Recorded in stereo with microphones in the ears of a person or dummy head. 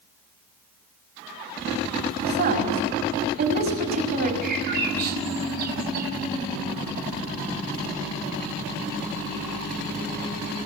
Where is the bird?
45° right (ahead or behind), 4 m.